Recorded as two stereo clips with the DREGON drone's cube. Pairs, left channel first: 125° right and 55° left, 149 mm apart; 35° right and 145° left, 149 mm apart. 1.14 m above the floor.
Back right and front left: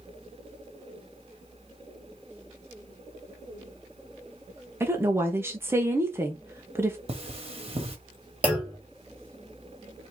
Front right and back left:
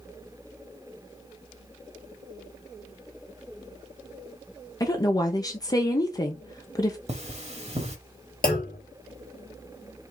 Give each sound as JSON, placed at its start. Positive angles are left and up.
{"t": 4.8, "sound": "a woman speaking", "azimuth_deg": 0, "distance_m": 0.7}
{"t": 7.1, "sound": "cutlery clinking", "azimuth_deg": 105, "distance_m": 1.2}
{"t": 8.4, "sound": "a clunk", "azimuth_deg": -25, "distance_m": 2.5}